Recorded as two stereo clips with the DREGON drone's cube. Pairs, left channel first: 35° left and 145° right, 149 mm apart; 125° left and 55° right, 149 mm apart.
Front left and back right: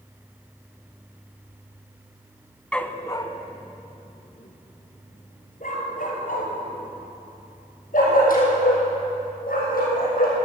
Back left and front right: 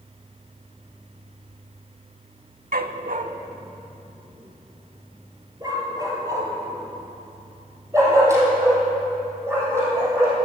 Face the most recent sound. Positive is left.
turn(degrees=20)